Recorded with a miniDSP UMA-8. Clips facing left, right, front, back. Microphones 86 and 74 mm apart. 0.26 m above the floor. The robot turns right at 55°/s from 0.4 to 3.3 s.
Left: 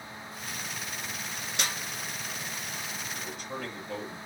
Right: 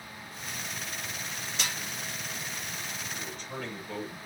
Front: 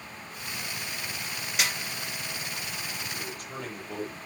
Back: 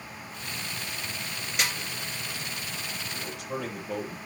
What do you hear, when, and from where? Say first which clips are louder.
1.6 s a snare drum: left 2 dB, even; 85° left, 2.5 m; by 1.8 s 95° left, 2.5 m
3.1 s a man speaking: left 1 dB, back 3 dB; 165° left, 6.5 m; by 4.2 s 175° left, 6.5 m